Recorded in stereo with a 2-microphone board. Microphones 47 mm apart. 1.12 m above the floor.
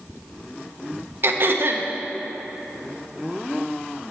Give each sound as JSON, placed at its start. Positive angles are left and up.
{"t": 1.2, "sound": "throat clearing", "side_deg": -50, "distance_m": 0.6}